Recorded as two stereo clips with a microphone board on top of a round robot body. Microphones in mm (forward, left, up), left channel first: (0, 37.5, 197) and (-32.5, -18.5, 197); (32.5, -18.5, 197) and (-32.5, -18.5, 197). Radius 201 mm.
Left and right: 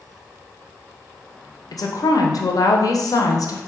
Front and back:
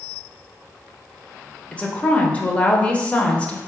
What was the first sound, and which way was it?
A woman speaking, 70° left.